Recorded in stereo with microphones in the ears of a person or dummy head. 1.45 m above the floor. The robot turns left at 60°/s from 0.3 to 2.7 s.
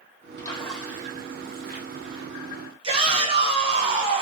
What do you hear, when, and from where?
0.4 s a splash: 20° left, 1.1 m; by 2.2 s 95° right, 1.1 m
2.8 s a shout: 35° right (ahead or behind), 1.4 m